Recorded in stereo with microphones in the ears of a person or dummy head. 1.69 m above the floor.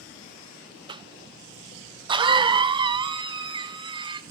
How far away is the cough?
About 0.8 m.